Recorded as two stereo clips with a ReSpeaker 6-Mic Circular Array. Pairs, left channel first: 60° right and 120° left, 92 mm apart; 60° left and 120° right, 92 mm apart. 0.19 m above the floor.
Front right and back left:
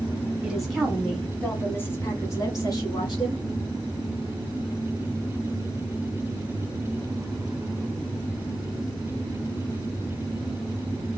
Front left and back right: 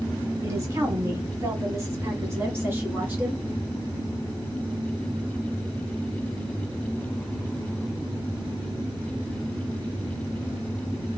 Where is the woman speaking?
160° right, 1.7 m; by 3.4 s 55° right, 1.8 m.